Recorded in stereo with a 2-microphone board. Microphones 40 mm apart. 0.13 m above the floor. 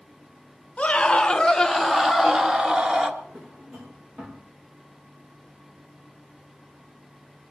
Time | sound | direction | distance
0.8 | a scream | 25° left (ahead or behind) | 1.5 m
3.2 | a drawer | 30° right (ahead or behind) | 5 m